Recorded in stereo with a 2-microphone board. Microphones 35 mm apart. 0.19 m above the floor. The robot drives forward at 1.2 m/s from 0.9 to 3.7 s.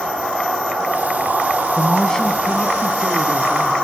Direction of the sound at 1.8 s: 20° left (ahead or behind).